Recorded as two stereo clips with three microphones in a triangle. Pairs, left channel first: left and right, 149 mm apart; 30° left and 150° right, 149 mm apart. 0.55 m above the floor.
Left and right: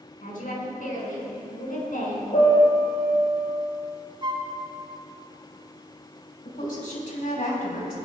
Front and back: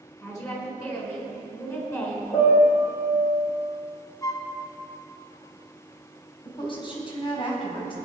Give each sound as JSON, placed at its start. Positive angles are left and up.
{"t": 0.2, "sound": "a woman speaking", "azimuth_deg": 100, "distance_m": 4.5}
{"t": 2.3, "sound": "a piano", "azimuth_deg": 75, "distance_m": 5.0}
{"t": 4.2, "sound": "a flute", "azimuth_deg": -35, "distance_m": 1.5}
{"t": 6.5, "sound": "a woman speaking", "azimuth_deg": 80, "distance_m": 3.5}